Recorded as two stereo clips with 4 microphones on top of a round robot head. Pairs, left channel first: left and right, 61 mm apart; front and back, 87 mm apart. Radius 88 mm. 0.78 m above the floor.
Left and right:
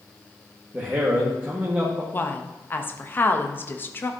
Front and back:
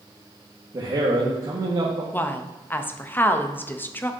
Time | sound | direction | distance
0.7 | a man speaking | 145° right | 1.6 m
2.1 | a woman speaking | 55° left | 0.9 m